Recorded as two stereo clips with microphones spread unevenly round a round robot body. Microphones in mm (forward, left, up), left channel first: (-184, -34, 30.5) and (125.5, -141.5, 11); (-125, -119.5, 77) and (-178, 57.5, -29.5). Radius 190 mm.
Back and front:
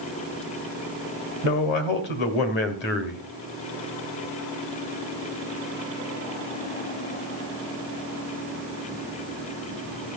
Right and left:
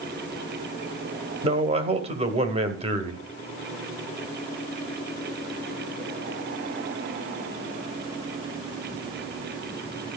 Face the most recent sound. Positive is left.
turn(degrees=105)